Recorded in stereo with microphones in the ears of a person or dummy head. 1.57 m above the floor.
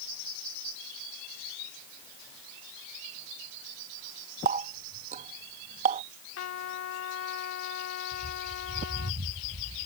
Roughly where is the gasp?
I don't hear a gasp.